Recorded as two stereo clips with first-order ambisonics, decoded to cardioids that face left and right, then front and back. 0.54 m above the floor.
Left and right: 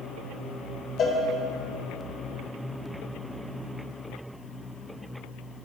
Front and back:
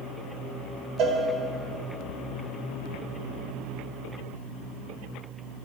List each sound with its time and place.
1.0 s a cowbell: 150° left, 1.6 m